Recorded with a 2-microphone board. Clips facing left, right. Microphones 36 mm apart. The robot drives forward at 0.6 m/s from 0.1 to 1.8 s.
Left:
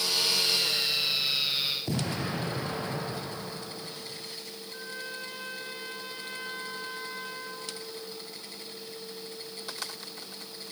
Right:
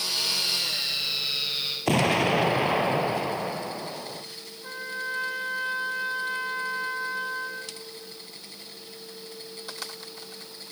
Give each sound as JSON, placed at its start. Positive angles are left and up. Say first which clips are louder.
{"t": 1.9, "sound": "an explosion", "louder": "right 10 dB", "side_deg": -80, "distance_m": 1.4}
{"t": 4.6, "sound": "a trumpet", "louder": "right 9 dB", "side_deg": -80, "distance_m": 8.5}